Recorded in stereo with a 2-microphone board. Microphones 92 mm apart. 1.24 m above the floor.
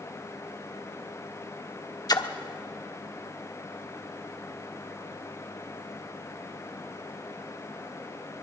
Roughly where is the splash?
Left.